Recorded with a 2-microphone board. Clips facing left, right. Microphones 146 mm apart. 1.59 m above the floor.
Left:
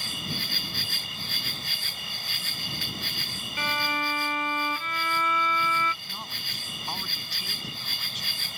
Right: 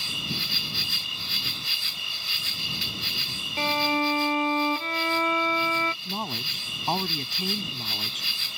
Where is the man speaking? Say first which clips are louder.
Right 9 dB; 50° right (ahead or behind).